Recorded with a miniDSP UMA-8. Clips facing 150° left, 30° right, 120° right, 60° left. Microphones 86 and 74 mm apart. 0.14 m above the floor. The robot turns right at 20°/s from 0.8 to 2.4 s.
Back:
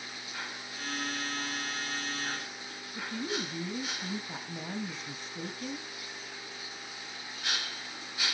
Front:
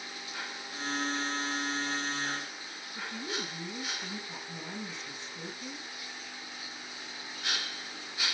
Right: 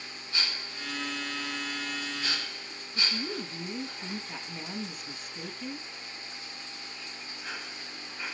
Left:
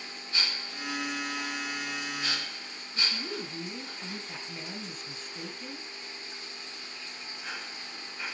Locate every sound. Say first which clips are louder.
3.0 s a woman speaking: back 3 dB, right 1 dB; 155° left, 2.5 m